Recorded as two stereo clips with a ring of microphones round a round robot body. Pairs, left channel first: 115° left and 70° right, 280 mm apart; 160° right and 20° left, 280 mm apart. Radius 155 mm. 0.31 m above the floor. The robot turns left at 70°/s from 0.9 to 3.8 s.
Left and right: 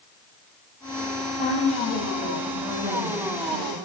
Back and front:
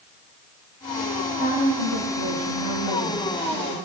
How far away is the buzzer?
I don't hear a buzzer.